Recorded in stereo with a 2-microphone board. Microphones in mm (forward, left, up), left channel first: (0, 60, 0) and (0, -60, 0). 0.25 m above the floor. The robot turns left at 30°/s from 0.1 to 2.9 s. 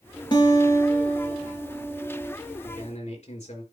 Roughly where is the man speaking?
Left.